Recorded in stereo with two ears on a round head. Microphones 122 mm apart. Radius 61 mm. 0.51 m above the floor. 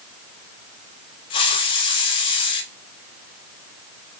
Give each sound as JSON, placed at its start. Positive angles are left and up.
{"t": 1.3, "sound": "a hiss", "side_deg": 35, "distance_m": 1.8}